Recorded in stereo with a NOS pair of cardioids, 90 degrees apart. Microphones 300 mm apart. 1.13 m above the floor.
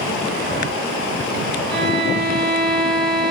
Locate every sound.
1.7 s a violin: 45° right, 2.5 m